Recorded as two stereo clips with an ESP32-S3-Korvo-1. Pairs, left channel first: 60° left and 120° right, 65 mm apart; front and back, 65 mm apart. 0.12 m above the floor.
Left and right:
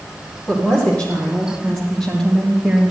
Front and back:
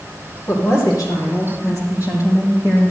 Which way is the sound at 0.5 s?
5° right.